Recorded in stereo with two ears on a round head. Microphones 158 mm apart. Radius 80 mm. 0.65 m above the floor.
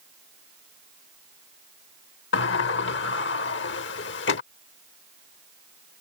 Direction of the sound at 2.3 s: 70° left (ahead or behind).